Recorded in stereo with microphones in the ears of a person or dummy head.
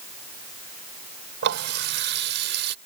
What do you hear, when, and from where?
1.4 s a running tap: 55° right (ahead or behind)